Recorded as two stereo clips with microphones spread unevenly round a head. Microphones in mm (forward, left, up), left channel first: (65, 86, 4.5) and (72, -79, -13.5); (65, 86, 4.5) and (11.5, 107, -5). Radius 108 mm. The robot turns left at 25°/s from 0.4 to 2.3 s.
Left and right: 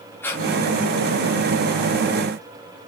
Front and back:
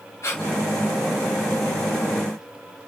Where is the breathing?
15° left, 3.5 m.